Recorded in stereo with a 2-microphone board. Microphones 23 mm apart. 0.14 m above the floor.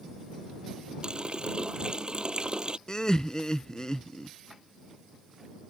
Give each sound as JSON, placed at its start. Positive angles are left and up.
{"t": 1.0, "sound": "a running tap", "side_deg": -40}
{"t": 2.9, "sound": "laughter", "side_deg": 30}